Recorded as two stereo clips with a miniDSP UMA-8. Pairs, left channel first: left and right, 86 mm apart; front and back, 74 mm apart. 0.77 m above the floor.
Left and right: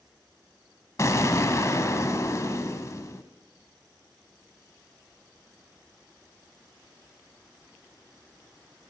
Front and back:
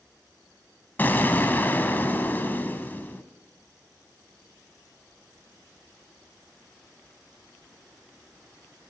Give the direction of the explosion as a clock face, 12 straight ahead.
10 o'clock.